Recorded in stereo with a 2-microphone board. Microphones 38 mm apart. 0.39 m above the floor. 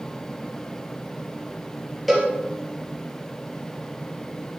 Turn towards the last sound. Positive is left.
turn(degrees=0)  # may be behind; listen again after turning